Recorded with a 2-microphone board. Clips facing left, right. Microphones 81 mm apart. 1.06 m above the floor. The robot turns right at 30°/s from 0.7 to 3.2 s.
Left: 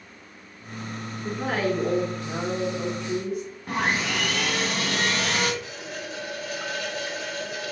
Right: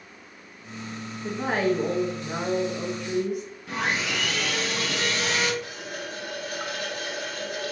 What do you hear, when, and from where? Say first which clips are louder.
1.2 s a woman speaking: right 1 dB; 160° right, 1.0 m; by 3.4 s 100° right, 1.0 m
3.7 s sawing: left 2 dB; 45° left (ahead or behind), 1.2 m
5.6 s a running tap: even; 55° right (ahead or behind), 1.9 m